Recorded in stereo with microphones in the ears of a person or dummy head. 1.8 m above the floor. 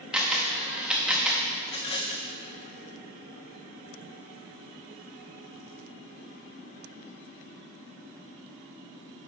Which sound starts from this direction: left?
A rattle, at 1.6 s.